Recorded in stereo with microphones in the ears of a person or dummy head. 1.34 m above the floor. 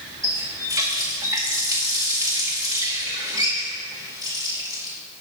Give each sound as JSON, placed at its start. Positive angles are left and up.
{"t": 0.2, "sound": "a running tap", "side_deg": -15, "distance_m": 1.1}